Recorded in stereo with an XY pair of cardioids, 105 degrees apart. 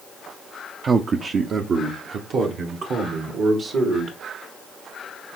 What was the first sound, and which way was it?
A man speaking, 35° right.